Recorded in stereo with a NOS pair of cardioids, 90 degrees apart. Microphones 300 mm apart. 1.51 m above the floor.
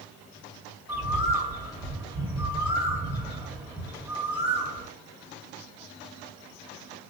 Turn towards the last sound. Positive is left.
turn(degrees=-5)